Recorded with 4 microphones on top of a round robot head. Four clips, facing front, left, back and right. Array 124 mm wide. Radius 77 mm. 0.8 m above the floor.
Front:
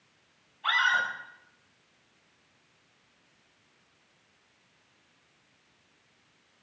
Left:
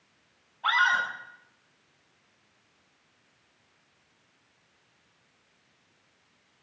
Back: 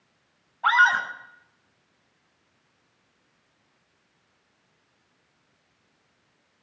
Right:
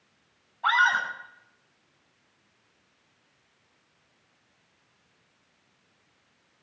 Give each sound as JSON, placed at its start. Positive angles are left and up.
{"t": 0.6, "sound": "a scream", "azimuth_deg": -150, "distance_m": 6.5}